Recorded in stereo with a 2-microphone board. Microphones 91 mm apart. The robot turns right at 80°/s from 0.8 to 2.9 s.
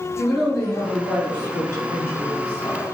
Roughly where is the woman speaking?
Behind.